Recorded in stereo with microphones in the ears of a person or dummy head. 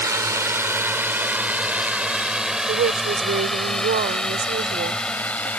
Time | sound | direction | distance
0.0 | a drone | 20° right (ahead or behind) | ?
2.6 | a woman speaking | 50° right (ahead or behind) | ?